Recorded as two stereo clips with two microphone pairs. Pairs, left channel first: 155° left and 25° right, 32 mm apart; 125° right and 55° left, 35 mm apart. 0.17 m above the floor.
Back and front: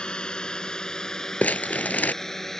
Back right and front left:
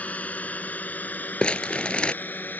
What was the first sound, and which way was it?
A drone, 155° right.